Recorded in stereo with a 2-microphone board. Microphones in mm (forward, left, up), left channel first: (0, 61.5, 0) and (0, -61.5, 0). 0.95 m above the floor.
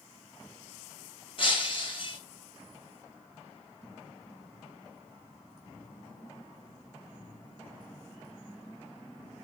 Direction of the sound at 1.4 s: 45° left (ahead or behind).